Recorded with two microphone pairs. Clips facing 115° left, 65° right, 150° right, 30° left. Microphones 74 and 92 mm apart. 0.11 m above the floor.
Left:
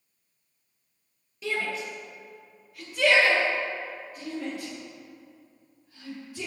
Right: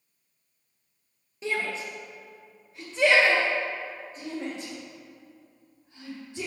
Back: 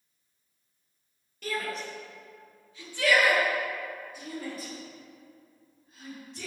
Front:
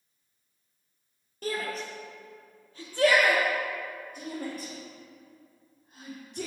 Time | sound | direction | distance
1.4 | a shout | 10° right | 3 m